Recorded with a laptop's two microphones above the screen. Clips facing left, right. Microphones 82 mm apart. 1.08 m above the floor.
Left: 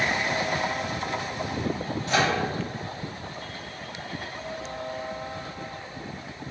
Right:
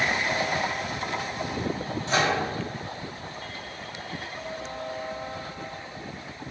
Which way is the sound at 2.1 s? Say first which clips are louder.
Even; 30° right (ahead or behind).